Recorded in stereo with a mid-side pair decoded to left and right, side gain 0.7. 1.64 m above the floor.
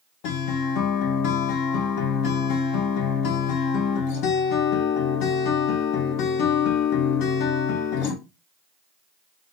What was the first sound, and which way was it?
A guitar, 70° left.